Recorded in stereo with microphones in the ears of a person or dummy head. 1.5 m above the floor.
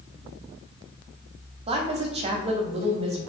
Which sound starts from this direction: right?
A woman speaking, at 1.7 s.